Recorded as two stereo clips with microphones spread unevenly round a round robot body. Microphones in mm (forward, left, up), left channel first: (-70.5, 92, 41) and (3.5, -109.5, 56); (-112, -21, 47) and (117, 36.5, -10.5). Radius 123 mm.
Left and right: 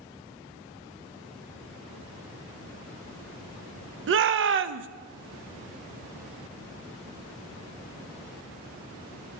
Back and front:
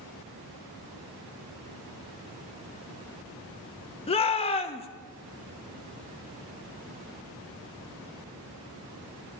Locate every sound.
4.1 s a shout: 95° right, 0.6 m